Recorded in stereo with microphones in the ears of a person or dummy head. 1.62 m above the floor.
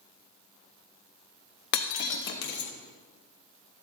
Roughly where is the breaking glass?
Left.